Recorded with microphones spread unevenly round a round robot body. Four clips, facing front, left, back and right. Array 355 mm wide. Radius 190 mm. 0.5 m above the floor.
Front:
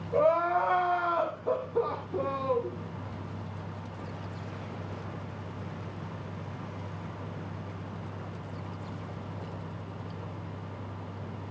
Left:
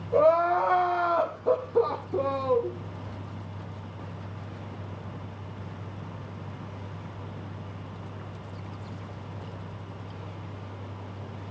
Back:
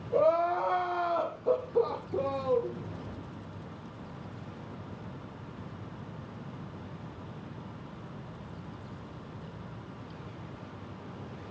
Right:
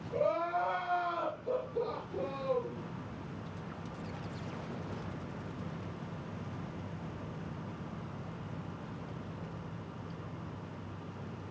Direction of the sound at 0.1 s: 75° left.